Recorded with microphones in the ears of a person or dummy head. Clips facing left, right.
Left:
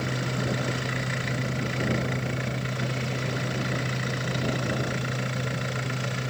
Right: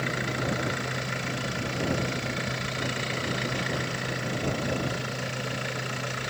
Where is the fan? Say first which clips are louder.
Left 1 dB; 10° left (ahead or behind).